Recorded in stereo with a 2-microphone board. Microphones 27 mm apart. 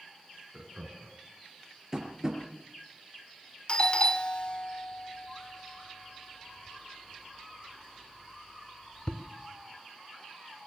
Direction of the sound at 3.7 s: 40° left (ahead or behind).